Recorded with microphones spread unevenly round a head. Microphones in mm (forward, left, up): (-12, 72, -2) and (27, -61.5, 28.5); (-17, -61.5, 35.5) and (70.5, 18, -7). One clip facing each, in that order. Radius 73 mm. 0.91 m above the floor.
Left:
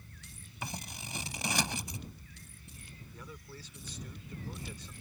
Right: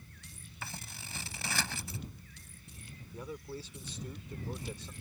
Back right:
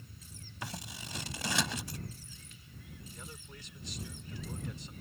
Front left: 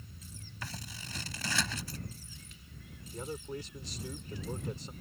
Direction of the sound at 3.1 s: 5° right.